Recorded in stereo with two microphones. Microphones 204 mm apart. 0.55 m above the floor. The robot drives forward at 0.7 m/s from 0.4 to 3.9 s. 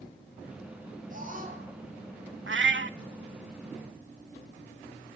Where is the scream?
40° right (ahead or behind), 10 m.